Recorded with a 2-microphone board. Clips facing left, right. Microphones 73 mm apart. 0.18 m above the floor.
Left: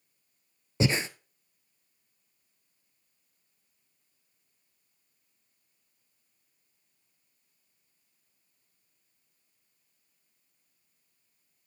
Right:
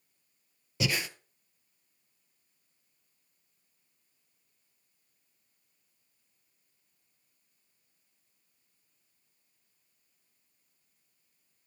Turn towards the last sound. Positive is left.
turn(degrees=30)  # may be behind; listen again after turning